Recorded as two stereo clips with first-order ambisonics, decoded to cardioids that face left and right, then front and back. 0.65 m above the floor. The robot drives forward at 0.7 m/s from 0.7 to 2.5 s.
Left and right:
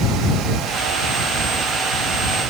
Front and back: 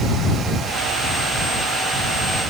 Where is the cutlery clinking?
I don't hear cutlery clinking.